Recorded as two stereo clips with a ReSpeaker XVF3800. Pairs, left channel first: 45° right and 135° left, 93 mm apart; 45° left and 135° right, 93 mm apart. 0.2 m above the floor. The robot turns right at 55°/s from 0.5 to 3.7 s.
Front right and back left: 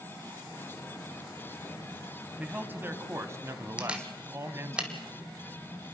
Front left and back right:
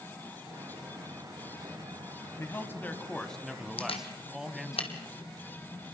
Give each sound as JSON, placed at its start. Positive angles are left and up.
{"t": 2.4, "sound": "a man speaking", "azimuth_deg": 75, "distance_m": 1.2}
{"t": 3.8, "sound": "a camera shutter", "azimuth_deg": 55, "distance_m": 1.9}